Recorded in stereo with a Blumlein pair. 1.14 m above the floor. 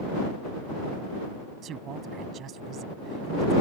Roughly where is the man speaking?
Ahead right.